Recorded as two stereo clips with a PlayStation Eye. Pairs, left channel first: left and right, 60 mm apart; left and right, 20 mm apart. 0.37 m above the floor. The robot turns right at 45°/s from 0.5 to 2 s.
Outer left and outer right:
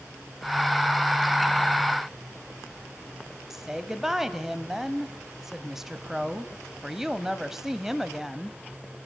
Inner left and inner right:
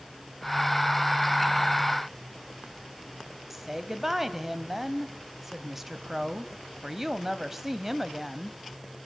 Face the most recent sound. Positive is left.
turn(degrees=-5)  # may be behind; listen again after turning